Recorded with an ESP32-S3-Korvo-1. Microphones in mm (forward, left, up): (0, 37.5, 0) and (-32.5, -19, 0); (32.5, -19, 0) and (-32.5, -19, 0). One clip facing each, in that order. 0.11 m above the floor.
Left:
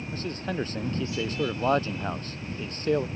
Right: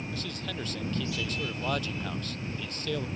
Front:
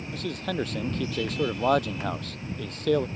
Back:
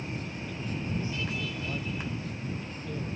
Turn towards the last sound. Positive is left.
turn(degrees=0)